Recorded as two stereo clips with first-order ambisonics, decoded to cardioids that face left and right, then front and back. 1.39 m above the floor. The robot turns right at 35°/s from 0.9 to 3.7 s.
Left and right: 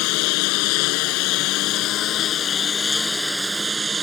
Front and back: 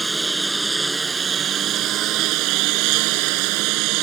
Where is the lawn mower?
100° left; by 4.0 s 165° right.